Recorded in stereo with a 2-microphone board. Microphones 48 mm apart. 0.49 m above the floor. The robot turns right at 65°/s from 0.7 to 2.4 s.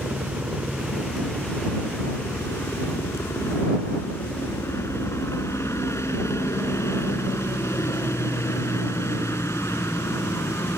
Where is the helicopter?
25° right; by 10.8 s 85° left.